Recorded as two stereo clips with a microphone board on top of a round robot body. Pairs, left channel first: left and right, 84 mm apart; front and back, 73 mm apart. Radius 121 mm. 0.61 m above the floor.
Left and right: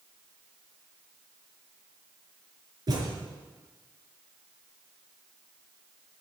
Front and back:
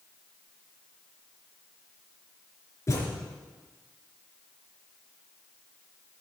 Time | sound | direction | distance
2.9 | a thud | 50° right | 4 m